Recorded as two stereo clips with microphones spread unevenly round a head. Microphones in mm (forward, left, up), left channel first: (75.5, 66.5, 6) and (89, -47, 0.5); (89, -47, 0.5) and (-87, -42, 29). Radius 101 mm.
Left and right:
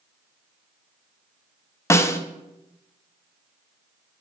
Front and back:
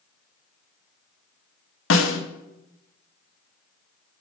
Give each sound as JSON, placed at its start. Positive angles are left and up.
{"t": 1.9, "sound": "a snare drum", "azimuth_deg": 30, "distance_m": 0.9}